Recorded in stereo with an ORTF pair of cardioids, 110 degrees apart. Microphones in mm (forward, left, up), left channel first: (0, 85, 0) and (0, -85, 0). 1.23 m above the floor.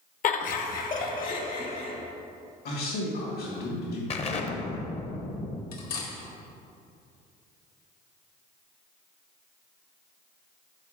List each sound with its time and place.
0.2 s laughter: 50° left, 0.8 m; by 1.9 s 55° left, 2.5 m
2.6 s a man speaking: 65° left, 2.5 m
4.1 s an explosion: 40° left, 0.8 m
5.7 s cutlery clinking: 60° left, 1.7 m